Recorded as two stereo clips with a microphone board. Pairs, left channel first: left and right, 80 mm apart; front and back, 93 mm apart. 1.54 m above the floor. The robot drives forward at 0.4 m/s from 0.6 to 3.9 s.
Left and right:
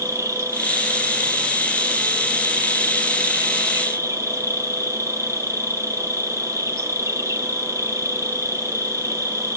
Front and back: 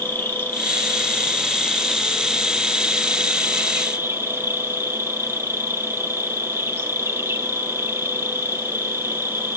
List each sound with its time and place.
0.0 s an insect: 60° right, 1.5 m; by 9.6 s 125° right, 1.6 m